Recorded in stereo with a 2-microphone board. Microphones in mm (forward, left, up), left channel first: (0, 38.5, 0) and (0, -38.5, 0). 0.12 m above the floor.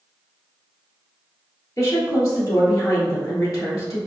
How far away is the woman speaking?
About 1.7 m.